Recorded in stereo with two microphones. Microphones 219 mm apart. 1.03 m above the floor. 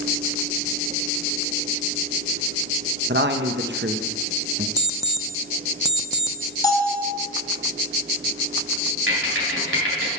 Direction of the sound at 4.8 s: 15° right (ahead or behind).